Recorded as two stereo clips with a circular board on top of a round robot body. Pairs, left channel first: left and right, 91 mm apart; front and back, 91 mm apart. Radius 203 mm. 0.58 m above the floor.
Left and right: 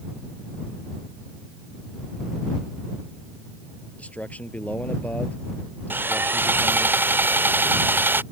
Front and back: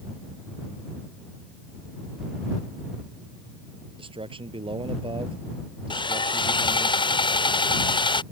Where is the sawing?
25° right.